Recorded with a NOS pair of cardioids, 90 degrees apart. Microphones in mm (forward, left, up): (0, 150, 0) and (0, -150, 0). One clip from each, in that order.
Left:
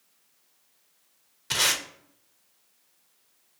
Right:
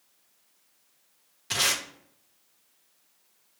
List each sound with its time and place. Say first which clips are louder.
1.5 s tape being pulled: left 1 dB; 10° left, 0.7 m